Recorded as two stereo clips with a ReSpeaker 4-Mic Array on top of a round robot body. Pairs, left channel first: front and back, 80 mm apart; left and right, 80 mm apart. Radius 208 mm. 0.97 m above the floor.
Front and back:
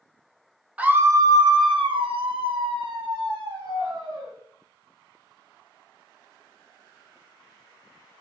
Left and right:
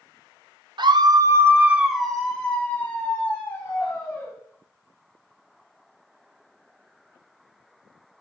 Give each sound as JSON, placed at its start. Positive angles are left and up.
{"t": 0.8, "sound": "a scream", "azimuth_deg": -110, "distance_m": 1.3}